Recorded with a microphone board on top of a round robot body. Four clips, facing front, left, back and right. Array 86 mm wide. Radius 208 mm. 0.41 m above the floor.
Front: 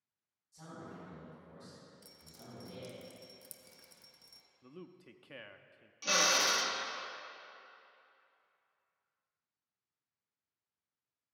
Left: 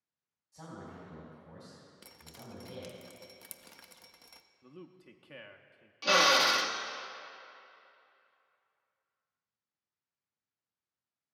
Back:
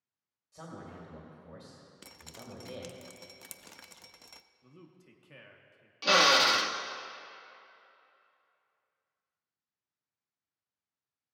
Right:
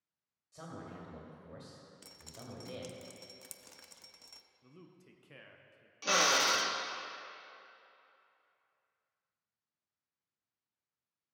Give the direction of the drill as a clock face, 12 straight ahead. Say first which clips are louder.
Left 4 dB, back 8 dB; 7 o'clock.